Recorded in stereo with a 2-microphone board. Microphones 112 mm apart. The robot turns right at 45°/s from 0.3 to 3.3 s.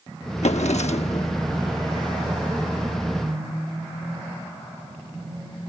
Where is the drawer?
80° left; by 1.3 s 120° left.